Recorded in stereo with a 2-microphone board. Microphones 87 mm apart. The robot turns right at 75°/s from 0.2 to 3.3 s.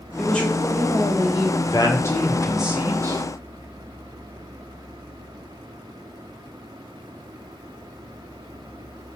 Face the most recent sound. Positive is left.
turn(degrees=-120)